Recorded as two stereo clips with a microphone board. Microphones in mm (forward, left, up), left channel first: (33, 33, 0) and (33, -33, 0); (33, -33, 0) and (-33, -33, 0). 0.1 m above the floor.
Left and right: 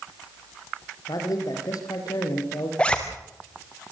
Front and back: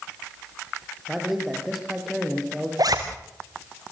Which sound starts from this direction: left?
A man speaking, at 1.1 s.